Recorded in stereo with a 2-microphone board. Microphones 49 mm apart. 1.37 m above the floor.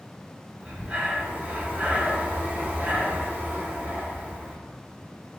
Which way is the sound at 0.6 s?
30° right (ahead or behind).